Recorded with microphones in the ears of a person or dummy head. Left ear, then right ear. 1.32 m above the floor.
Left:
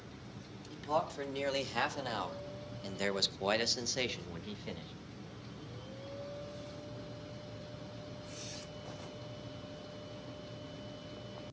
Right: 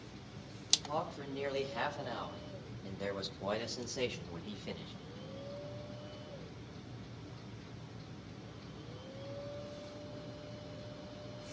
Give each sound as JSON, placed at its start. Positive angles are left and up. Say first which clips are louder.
{"t": 0.7, "sound": "a man speaking", "louder": "right 1 dB", "side_deg": 65, "distance_m": 4.0}